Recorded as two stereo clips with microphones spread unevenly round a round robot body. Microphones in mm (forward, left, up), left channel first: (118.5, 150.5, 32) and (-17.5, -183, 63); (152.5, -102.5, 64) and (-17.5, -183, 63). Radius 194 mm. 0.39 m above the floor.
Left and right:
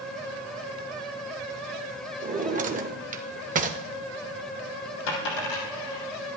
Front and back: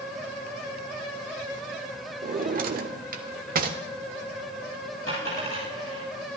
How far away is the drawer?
About 0.9 m.